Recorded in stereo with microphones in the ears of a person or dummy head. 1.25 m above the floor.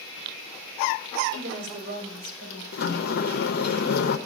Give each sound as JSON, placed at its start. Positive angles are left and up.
{"t": 1.3, "sound": "a woman speaking", "side_deg": -60, "distance_m": 3.5}
{"t": 2.7, "sound": "a sliding door", "side_deg": 55, "distance_m": 0.8}